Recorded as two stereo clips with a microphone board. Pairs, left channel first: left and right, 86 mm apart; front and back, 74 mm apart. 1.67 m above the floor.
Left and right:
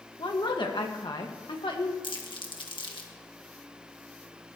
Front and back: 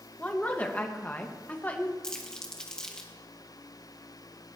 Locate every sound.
0.2 s a woman speaking: 70° left, 1.7 m
2.0 s crumpling: 80° left, 1.7 m